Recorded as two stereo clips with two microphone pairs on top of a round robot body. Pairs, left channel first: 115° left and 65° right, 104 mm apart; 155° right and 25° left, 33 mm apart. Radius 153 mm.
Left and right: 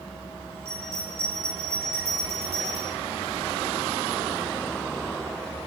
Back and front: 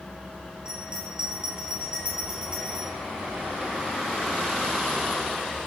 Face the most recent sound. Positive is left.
turn(degrees=-50)